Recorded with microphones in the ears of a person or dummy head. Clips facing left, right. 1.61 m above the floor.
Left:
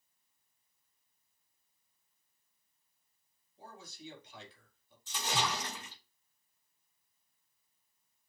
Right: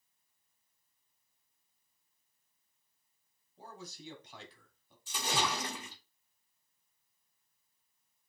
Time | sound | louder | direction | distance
3.6 | a man speaking | right 2 dB | 40° right (ahead or behind) | 2.5 m
5.1 | a splash | right 1 dB | 10° right (ahead or behind) | 1.7 m